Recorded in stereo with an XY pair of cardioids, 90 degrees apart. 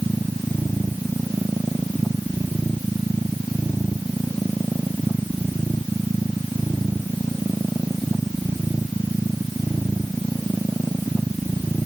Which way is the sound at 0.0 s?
10° right.